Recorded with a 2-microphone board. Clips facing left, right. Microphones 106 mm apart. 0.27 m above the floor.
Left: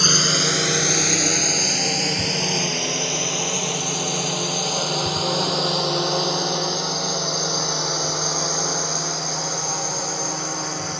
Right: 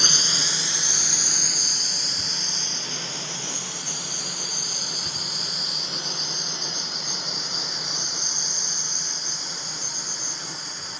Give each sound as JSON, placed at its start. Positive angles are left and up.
{"t": 0.0, "sound": "a drone", "side_deg": 70}